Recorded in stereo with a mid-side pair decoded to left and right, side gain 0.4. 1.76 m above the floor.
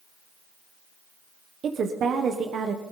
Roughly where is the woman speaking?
Ahead right.